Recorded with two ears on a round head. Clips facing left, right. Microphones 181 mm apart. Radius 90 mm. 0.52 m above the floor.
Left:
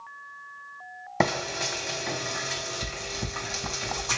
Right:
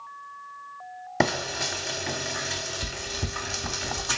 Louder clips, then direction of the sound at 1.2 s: Even; 10° right (ahead or behind).